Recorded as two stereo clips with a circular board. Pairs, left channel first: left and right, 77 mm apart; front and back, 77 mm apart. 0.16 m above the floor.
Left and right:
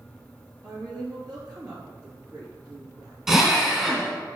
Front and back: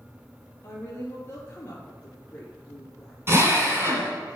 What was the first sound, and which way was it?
A woman speaking, 65° right.